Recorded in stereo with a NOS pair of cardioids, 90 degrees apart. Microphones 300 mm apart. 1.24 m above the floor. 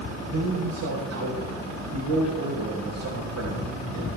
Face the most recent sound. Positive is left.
turn(degrees=-65)